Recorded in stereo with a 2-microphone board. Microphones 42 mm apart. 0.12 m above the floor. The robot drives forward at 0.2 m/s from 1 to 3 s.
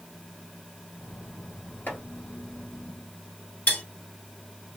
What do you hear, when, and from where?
1.9 s chopping: 50° left (ahead or behind), 1.6 m
3.7 s cutlery clinking: 50° left (ahead or behind), 1.8 m